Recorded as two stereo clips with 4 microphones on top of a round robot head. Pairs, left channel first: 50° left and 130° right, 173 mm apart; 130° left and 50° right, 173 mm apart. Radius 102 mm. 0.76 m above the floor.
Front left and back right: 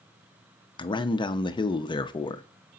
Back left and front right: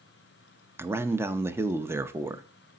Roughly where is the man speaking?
Ahead.